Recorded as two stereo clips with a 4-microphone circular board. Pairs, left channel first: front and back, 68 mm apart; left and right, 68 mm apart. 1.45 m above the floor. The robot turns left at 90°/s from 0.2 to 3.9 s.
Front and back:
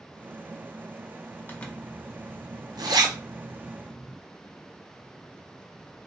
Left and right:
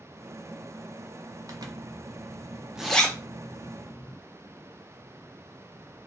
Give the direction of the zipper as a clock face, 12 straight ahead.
2 o'clock.